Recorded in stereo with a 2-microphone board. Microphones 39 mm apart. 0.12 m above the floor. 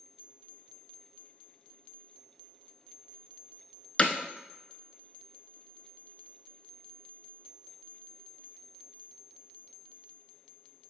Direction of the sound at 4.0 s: 30° left (ahead or behind).